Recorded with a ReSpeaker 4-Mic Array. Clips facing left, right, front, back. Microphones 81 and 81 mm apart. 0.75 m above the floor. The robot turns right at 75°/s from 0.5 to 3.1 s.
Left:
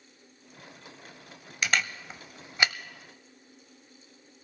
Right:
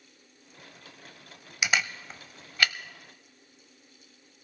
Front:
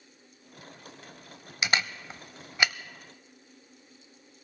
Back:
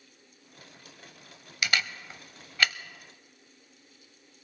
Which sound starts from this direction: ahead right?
A camera shutter, at 1.6 s.